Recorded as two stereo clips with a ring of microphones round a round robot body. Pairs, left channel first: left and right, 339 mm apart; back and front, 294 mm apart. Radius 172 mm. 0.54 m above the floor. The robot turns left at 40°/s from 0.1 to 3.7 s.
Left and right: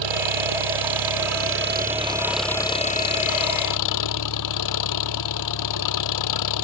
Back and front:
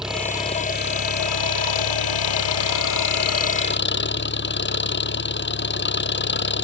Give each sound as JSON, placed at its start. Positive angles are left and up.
{"t": 0.0, "sound": "an engine running", "azimuth_deg": -90}